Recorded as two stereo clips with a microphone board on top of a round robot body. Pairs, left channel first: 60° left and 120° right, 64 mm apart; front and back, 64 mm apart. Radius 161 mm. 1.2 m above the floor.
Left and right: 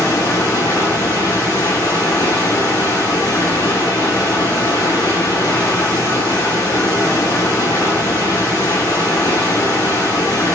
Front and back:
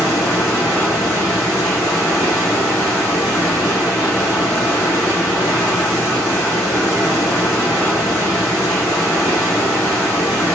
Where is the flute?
I don't hear a flute.